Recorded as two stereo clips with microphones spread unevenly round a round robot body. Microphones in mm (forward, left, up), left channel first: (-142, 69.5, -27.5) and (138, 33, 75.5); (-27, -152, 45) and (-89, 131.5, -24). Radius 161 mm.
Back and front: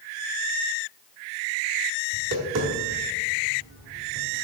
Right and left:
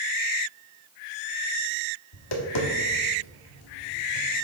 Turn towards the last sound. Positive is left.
turn(degrees=-65)